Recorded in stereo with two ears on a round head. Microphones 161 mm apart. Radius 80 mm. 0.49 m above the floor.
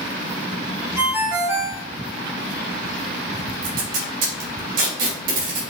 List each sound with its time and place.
1.0 s a ringtone: 10° right (ahead or behind), 0.9 m
3.6 s tape being pulled: 50° right (ahead or behind), 1.7 m